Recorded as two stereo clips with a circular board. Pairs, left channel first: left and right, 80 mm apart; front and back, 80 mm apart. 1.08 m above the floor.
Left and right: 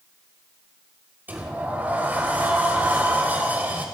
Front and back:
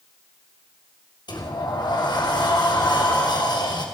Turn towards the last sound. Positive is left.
turn(degrees=-25)